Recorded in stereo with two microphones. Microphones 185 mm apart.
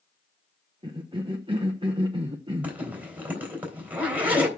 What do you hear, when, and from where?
0.8 s a cough: 25° right (ahead or behind), 0.8 m
2.6 s a zipper: 10° right (ahead or behind), 3.5 m